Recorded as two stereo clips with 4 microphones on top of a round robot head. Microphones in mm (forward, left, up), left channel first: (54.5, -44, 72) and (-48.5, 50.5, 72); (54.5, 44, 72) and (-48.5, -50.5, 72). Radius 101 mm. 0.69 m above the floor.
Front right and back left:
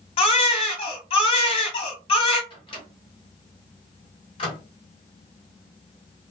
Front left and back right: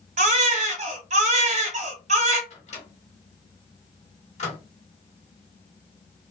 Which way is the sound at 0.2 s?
100° right.